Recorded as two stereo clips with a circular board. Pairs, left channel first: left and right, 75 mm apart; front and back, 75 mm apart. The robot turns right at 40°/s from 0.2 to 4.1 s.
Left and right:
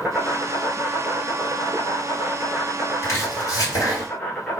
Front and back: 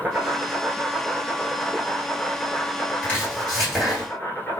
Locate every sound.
0.0 s an insect: 130° right, 1.2 m; by 4.6 s 25° left, 1.2 m
3.0 s chopping: 60° left, 2 m; by 4.1 s 100° left, 2 m